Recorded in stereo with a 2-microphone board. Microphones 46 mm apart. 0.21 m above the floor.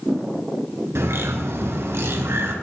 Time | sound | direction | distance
0.9 | a bird | 65° right (ahead or behind) | 2 m